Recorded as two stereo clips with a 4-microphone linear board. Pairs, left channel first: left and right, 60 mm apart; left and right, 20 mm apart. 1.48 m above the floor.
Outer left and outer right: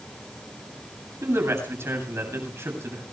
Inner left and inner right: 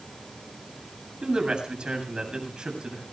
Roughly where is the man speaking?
Right.